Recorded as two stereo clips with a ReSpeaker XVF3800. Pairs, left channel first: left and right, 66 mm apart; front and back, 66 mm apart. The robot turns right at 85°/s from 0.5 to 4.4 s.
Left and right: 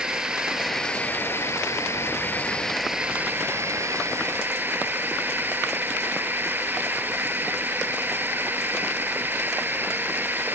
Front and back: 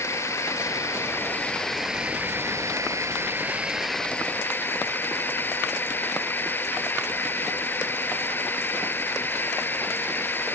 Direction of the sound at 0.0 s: 15° right.